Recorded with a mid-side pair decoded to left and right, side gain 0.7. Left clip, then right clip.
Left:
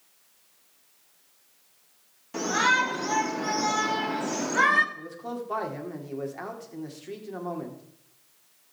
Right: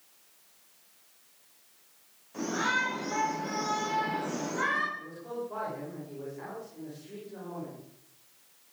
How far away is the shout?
About 4 m.